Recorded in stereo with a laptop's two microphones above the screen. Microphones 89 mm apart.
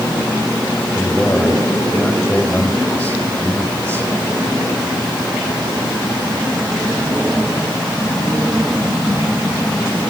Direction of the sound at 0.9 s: 15° left (ahead or behind).